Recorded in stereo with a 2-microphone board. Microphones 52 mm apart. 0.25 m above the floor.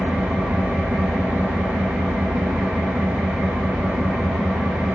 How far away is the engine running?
About 1.0 m.